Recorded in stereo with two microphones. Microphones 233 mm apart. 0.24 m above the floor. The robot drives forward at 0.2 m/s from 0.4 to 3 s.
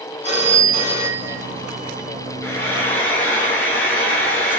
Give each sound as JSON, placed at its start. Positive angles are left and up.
{"t": 0.2, "sound": "a phone ringing", "side_deg": 30, "distance_m": 1.4}
{"t": 2.4, "sound": "frying", "side_deg": 10, "distance_m": 0.9}